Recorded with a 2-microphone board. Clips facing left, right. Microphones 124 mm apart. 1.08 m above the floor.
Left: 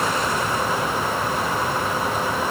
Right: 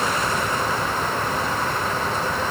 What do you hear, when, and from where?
Only background noise.